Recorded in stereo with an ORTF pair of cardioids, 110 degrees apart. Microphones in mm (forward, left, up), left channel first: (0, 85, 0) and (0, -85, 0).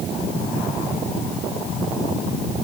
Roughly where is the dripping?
I don't hear dripping.